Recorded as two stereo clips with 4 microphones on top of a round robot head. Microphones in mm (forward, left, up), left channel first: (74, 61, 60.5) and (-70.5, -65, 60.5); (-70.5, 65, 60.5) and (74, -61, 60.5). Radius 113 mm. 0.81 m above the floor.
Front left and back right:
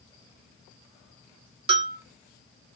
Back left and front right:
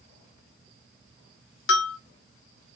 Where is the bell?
160° left, 0.8 m.